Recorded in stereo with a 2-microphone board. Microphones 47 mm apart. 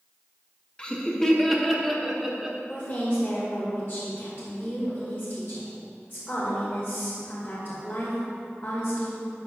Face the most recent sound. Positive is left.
turn(degrees=50)  # may be behind; listen again after turning